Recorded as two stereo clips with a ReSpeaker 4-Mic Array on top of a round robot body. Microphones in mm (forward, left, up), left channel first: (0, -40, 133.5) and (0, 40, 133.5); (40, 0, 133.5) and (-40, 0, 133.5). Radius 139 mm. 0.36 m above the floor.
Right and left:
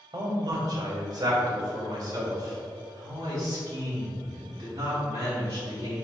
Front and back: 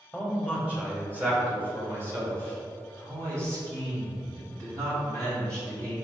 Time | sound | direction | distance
0.1 | a man speaking | 90° left | 1.6 m